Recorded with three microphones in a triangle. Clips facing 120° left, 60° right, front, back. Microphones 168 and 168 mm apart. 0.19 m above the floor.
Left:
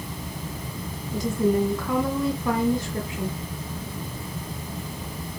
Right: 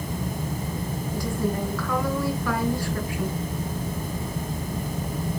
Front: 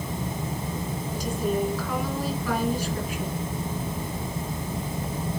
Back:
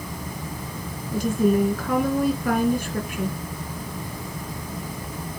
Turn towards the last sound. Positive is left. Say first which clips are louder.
# left 6 dB, back 8 dB
turn(degrees=180)